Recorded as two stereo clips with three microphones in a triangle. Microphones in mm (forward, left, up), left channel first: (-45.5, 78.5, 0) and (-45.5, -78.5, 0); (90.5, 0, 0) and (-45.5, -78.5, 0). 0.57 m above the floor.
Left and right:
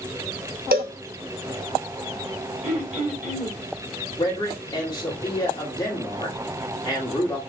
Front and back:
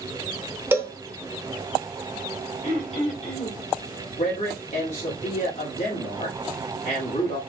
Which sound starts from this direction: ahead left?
A man speaking, at 4.2 s.